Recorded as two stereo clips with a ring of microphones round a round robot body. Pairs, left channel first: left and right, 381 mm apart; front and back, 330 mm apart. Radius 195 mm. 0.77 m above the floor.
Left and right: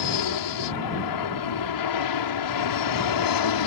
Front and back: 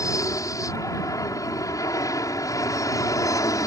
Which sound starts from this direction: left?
An aircraft, at 0.0 s.